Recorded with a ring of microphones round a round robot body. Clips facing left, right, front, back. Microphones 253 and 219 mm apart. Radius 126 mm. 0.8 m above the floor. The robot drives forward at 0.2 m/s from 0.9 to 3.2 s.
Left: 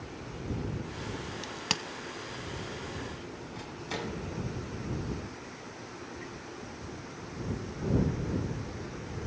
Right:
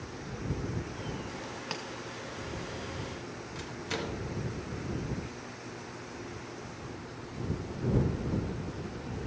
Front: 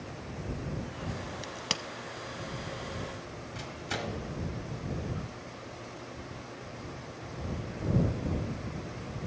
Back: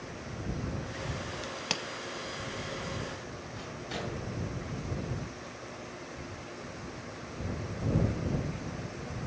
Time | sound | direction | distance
1.4 | a crack | 85° left | 0.6 m
3.5 | a microwave | 40° right | 1.9 m